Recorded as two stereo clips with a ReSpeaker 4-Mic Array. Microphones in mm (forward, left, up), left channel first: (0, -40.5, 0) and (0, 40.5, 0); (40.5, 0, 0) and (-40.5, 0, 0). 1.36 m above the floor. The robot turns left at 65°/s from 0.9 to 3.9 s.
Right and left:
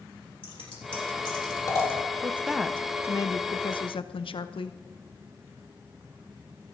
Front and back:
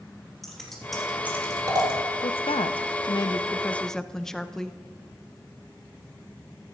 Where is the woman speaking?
25° left, 0.6 m; by 4.8 s 85° right, 0.6 m.